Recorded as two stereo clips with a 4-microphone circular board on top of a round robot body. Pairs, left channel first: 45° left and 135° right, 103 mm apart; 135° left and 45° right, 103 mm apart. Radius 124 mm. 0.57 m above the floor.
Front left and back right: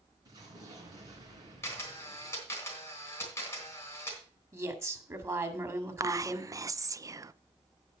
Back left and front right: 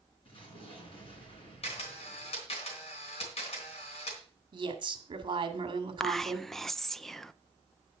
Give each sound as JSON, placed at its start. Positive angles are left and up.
{"t": 0.2, "sound": "an explosion", "azimuth_deg": 170, "distance_m": 3.5}
{"t": 1.6, "sound": "a camera shutter", "azimuth_deg": 115, "distance_m": 3.5}
{"t": 4.5, "sound": "a woman speaking", "azimuth_deg": -75, "distance_m": 2.0}
{"t": 6.0, "sound": "whispering", "azimuth_deg": -140, "distance_m": 0.6}